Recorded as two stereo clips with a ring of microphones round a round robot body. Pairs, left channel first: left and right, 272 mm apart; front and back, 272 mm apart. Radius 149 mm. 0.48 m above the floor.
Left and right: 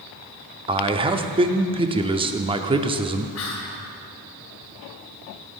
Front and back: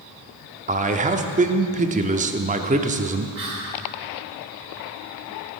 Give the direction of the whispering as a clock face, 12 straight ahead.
8 o'clock.